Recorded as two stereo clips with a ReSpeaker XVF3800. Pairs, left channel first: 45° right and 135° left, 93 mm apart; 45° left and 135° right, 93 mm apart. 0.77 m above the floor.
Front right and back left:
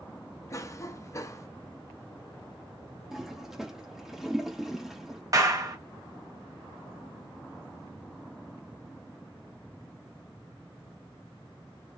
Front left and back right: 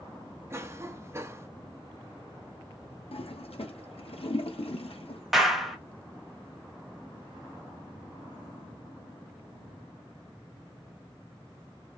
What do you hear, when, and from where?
0.5 s a cough: 85° right, 0.6 m
3.1 s a toilet flushing: 50° left, 0.7 m
5.3 s a clap: 140° left, 0.8 m